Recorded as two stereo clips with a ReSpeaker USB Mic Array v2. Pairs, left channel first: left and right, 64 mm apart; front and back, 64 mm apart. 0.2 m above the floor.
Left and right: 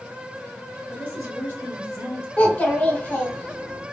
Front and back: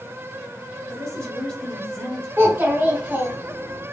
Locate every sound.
0.9 s a woman speaking: 70° right, 1.8 m
2.4 s a child speaking: 140° left, 1.1 m